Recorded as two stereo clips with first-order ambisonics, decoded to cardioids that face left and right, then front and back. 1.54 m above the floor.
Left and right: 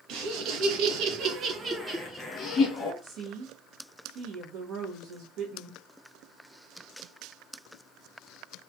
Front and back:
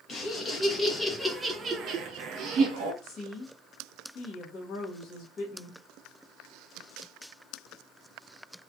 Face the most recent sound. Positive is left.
turn(degrees=-55)